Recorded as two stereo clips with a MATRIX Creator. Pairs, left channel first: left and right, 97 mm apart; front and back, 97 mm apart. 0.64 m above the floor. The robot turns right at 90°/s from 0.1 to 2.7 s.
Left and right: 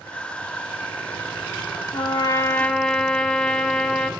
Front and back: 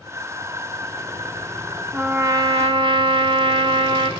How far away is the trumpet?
About 0.8 m.